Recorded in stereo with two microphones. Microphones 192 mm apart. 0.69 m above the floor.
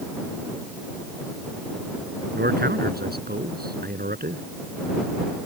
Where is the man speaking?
60° right (ahead or behind); by 4.4 s 50° right (ahead or behind).